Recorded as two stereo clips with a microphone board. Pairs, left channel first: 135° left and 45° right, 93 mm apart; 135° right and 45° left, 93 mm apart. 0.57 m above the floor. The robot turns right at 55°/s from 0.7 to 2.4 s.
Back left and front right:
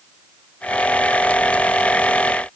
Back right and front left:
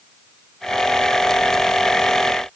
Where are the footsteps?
I don't hear footsteps.